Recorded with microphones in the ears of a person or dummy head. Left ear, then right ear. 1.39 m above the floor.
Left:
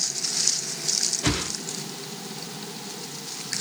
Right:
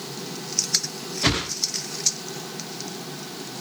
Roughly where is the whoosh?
Centre.